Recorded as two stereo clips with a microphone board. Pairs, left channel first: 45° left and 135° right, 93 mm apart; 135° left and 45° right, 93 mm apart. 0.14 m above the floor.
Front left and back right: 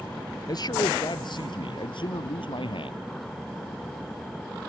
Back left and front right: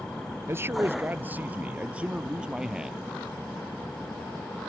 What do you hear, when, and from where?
0.5 s a man speaking: 10° left; by 3.0 s 40° left